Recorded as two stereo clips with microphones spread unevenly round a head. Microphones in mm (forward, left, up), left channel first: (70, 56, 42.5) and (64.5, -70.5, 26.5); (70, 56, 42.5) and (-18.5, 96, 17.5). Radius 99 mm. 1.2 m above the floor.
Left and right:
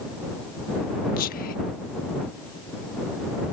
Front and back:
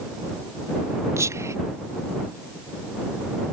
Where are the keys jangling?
No keys jangling in this recording.